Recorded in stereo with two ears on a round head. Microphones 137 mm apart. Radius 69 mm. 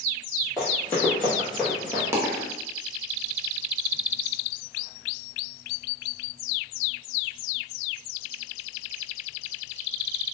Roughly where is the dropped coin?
Centre.